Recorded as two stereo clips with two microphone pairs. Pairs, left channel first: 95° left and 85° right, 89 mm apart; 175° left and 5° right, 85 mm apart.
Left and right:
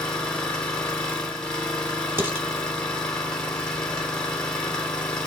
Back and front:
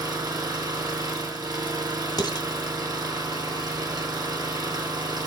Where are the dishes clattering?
150° right, 1.1 m.